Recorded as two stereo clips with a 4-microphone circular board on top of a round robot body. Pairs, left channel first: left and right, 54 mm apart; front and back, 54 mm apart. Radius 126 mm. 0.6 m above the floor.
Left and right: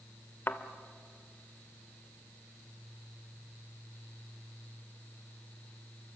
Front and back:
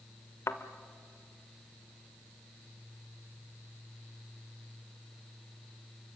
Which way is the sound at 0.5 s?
40° left.